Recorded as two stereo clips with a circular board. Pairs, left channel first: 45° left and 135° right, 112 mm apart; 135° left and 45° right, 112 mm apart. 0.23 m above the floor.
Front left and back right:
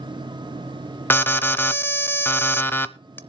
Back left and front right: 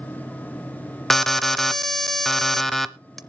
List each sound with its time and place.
1.1 s an alarm: 50° left, 0.6 m